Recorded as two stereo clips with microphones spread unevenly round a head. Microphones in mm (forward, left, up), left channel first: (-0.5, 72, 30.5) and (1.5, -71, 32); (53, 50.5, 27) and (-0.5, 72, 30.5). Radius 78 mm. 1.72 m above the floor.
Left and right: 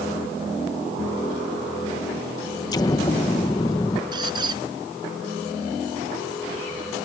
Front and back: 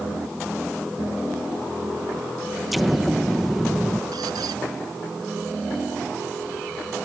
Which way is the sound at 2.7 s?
80° left.